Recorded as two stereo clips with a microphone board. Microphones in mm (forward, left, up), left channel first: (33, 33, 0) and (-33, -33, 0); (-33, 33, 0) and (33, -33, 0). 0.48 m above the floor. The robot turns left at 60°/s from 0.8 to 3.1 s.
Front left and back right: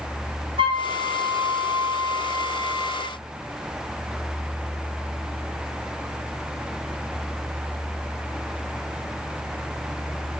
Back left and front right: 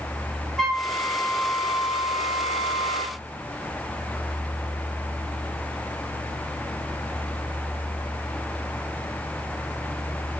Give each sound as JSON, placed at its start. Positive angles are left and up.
{"t": 0.6, "sound": "a flute", "azimuth_deg": -135, "distance_m": 2.5}